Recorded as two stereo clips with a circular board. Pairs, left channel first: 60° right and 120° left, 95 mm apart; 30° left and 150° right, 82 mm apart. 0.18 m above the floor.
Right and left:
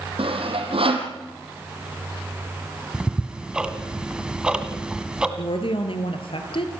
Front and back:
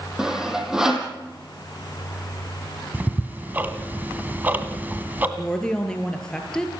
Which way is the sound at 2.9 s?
175° right.